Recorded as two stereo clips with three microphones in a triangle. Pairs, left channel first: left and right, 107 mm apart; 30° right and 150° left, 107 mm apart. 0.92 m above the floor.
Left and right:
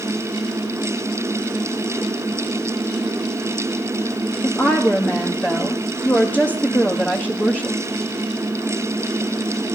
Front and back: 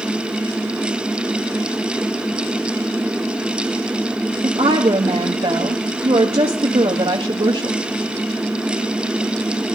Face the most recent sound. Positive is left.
turn(degrees=160)